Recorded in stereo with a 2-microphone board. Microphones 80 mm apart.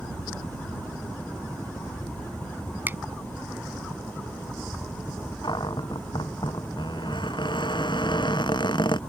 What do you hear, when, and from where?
0.0 s a helicopter: 30° left (ahead or behind)
2.9 s a finger snap: 25° right (ahead or behind)
5.4 s a cupboard door: 70° left (ahead or behind)